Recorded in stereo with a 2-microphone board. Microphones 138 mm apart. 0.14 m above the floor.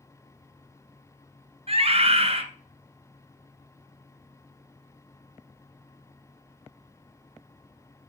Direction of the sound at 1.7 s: 50° right (ahead or behind).